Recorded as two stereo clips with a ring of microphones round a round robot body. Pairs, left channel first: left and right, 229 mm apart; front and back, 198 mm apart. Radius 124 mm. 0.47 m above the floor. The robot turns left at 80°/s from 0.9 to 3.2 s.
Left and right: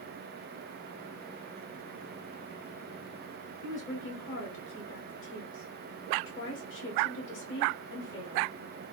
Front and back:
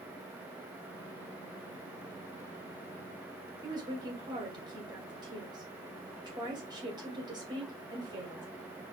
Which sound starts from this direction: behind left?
A woman speaking, at 3.6 s.